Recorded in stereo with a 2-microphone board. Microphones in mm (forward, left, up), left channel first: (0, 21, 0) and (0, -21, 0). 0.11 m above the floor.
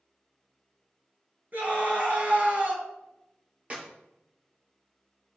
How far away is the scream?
About 2.5 m.